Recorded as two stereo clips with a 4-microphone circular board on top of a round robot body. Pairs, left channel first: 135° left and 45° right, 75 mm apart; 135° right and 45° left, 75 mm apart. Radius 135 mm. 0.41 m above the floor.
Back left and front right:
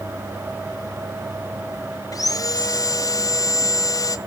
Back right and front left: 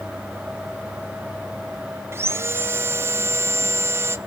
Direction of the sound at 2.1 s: 100° left.